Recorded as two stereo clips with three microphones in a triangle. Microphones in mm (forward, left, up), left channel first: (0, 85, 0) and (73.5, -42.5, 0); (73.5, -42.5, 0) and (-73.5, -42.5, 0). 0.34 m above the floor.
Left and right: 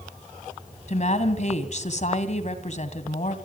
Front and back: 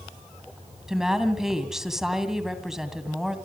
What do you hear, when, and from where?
0.9 s a woman speaking: 95° left, 2.5 m